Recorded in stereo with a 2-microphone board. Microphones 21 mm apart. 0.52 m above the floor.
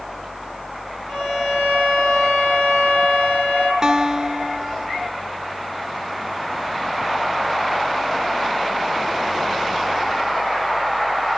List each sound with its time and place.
1.1 s a violin: 5° left (ahead or behind), 7.5 m
3.8 s a guitar: 20° right (ahead or behind), 1.6 m